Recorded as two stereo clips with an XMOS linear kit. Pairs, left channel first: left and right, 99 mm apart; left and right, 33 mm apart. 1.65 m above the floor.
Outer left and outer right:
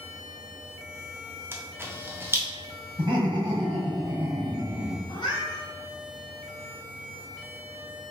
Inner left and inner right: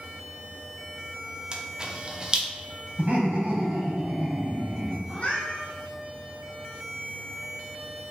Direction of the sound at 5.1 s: 55° left (ahead or behind).